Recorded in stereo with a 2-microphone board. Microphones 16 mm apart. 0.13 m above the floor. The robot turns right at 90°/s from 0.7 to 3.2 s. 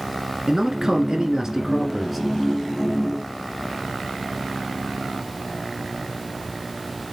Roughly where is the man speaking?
Behind right.